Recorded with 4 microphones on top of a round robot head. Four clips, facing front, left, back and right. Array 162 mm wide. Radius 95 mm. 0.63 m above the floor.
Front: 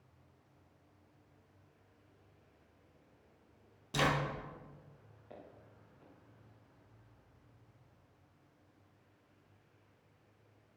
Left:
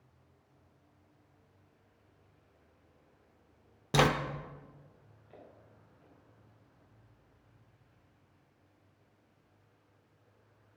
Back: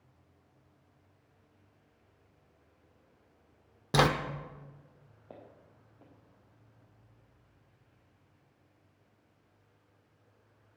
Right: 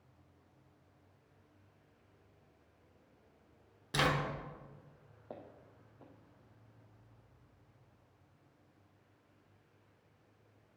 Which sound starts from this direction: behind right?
Footsteps, at 5.3 s.